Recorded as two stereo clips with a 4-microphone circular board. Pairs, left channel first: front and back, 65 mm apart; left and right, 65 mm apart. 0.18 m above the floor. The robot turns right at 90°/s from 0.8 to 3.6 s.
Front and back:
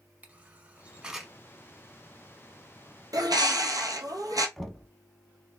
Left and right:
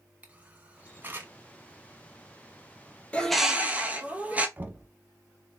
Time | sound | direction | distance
0.2 | a camera shutter | 135° right | 0.9 m
3.1 | a bird | 160° left | 0.8 m
4.6 | knocking | 85° right | 0.8 m